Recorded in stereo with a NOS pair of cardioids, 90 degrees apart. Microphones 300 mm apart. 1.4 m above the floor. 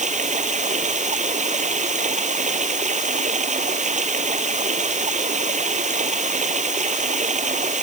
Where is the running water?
25° right.